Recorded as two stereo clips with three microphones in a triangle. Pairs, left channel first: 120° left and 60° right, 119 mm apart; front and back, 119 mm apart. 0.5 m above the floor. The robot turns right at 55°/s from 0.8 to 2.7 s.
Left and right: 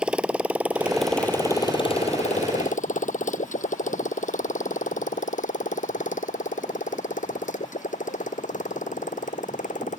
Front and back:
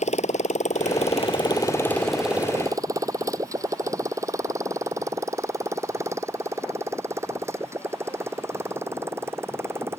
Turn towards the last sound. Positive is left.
turn(degrees=110)